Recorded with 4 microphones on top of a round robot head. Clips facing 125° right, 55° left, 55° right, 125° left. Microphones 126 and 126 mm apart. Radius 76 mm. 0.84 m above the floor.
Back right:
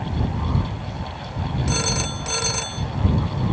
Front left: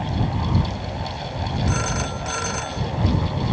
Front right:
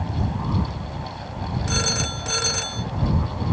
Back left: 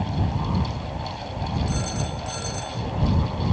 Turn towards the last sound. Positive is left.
turn(degrees=-65)